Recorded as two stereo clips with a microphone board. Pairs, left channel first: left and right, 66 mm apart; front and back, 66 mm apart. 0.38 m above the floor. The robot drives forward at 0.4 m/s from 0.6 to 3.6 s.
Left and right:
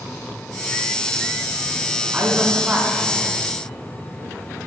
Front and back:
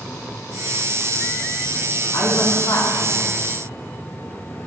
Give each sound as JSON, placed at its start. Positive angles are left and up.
{"t": 2.1, "sound": "a man speaking", "azimuth_deg": -15, "distance_m": 3.0}